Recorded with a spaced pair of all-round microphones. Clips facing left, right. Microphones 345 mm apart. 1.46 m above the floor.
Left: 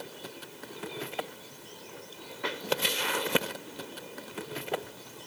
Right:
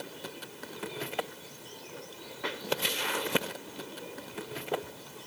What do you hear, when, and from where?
Only background noise.